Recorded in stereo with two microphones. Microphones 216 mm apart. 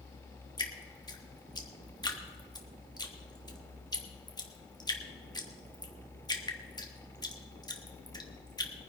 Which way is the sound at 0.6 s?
20° left (ahead or behind).